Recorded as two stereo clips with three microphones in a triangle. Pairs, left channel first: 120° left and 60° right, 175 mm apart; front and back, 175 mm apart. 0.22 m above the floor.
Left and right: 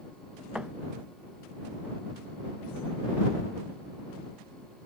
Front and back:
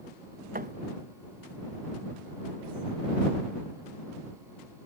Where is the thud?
145° right.